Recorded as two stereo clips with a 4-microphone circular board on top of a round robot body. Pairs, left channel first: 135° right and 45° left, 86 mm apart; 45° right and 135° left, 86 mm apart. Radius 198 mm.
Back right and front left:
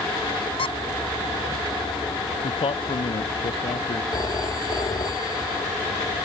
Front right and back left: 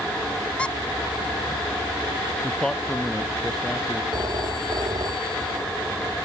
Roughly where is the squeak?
Behind right.